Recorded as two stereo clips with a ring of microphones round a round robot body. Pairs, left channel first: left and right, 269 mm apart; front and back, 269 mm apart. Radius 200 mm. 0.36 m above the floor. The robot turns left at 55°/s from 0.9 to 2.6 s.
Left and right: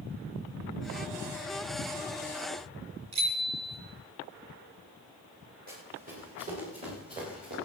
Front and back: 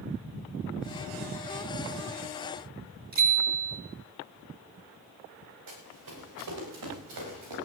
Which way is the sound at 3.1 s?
130° right.